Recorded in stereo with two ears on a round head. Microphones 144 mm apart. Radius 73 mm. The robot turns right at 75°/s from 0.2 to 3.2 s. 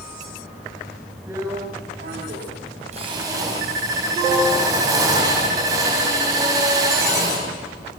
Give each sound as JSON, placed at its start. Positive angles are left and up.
{"t": 1.3, "sound": "a drill", "azimuth_deg": -165, "distance_m": 5.0}